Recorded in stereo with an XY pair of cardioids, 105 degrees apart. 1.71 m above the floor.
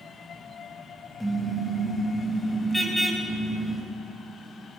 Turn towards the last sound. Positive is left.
turn(degrees=5)